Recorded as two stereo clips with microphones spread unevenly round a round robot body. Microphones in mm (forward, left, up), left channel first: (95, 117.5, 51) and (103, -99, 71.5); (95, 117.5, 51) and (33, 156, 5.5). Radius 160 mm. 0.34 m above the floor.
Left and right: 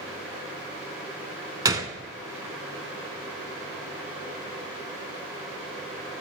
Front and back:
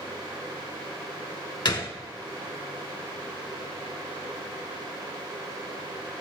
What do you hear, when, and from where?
1.6 s a gunshot: 15° right, 0.9 m